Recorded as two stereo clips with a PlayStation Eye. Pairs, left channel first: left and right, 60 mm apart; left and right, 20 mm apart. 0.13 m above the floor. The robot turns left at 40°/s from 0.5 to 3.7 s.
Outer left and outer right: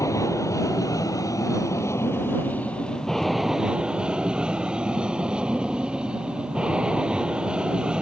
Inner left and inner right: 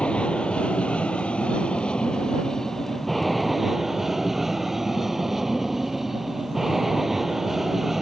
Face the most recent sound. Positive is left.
turn(degrees=-15)